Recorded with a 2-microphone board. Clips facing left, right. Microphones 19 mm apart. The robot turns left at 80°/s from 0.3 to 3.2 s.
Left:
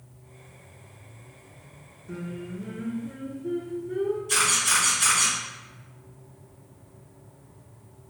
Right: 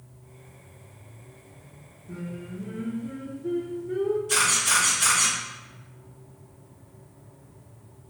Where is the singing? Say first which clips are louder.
Left 1 dB; 65° left, 0.6 m; by 4.2 s 25° right, 0.6 m.